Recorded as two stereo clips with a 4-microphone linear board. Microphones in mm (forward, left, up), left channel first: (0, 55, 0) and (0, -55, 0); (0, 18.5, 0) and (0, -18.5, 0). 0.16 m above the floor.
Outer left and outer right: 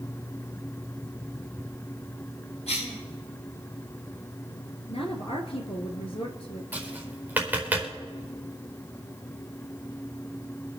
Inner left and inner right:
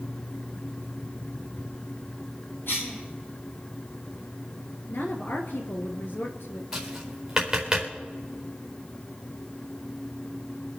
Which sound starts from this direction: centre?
Tapping, at 6.7 s.